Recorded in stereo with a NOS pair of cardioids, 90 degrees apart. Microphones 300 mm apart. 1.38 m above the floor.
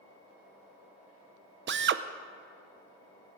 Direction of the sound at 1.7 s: 40° right.